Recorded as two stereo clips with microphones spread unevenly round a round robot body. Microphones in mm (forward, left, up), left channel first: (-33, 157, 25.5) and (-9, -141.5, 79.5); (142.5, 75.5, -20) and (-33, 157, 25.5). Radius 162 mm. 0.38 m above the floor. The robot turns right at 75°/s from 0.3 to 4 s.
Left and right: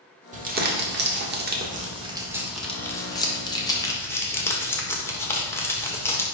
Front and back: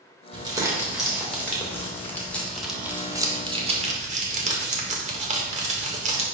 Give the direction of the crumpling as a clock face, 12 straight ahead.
5 o'clock.